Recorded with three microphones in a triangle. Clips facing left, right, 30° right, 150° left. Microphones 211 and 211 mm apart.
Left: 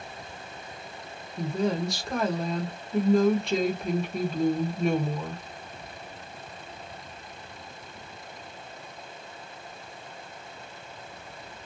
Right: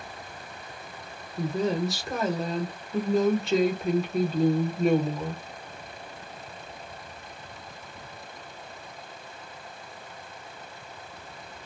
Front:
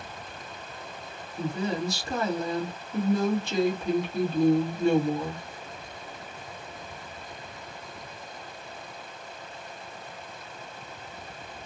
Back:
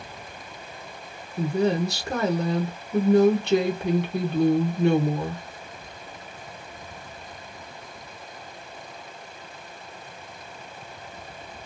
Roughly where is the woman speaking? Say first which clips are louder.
Right 1 dB, back 7 dB; behind.